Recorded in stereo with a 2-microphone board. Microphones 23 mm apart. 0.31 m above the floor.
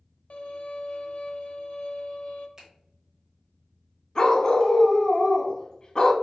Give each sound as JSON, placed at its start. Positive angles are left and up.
{"t": 0.3, "sound": "a violin", "side_deg": 65, "distance_m": 0.5}
{"t": 2.6, "sound": "a finger snap", "side_deg": -30, "distance_m": 0.8}
{"t": 4.2, "sound": "a dog barking", "side_deg": 35, "distance_m": 0.5}